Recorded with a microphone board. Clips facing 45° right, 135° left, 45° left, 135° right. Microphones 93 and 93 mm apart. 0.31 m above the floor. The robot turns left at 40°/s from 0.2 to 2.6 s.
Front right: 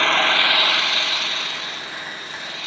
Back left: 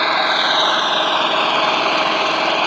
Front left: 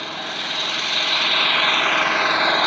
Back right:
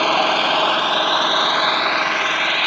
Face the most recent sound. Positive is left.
turn(degrees=115)